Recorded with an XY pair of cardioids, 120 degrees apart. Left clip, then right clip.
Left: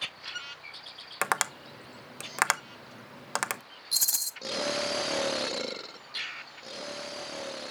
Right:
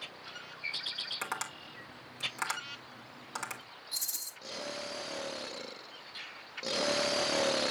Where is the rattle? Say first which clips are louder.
Left 9 dB; 65° left, 0.8 m.